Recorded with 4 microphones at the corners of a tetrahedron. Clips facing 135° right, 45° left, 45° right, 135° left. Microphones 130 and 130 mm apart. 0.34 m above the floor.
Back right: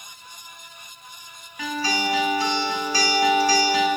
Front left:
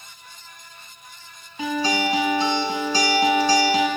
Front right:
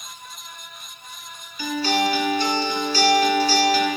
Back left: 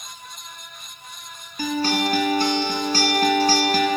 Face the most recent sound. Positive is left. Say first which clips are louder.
# front left 3 dB, even
turn(degrees=105)